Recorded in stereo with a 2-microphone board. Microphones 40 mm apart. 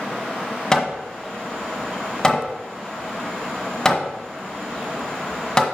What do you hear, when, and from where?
0.7 s hammering: 15° left (ahead or behind), 1.4 m